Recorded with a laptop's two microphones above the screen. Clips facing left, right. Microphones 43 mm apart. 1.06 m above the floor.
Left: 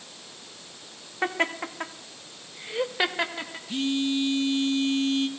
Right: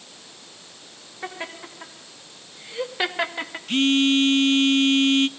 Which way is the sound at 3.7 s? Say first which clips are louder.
Right 8 dB; 60° right (ahead or behind).